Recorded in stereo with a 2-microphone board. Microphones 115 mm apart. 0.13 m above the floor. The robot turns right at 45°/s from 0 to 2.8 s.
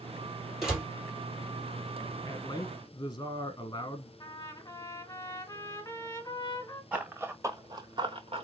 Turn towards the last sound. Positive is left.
turn(degrees=-55)  # may be behind; listen again after turning